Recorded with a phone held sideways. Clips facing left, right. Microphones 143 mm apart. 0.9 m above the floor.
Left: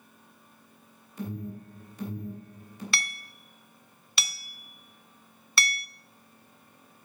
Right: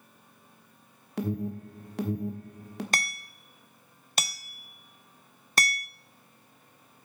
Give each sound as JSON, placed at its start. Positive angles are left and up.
{"t": 1.2, "sound": "an alarm", "side_deg": -75, "distance_m": 1.4}
{"t": 2.9, "sound": "hammering", "side_deg": -40, "distance_m": 0.5}